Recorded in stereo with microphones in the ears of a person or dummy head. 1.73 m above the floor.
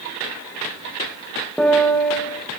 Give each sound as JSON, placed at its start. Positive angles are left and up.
{"t": 1.6, "sound": "a piano", "side_deg": 5, "distance_m": 2.5}